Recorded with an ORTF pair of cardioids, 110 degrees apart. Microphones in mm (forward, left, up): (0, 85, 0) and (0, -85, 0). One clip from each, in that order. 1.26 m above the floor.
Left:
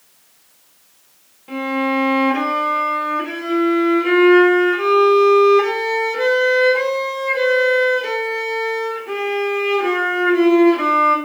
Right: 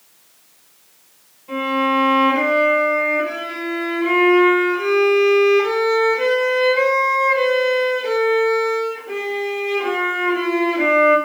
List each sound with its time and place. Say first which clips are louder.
1.5 s a violin: right 2 dB; 40° left, 1.0 m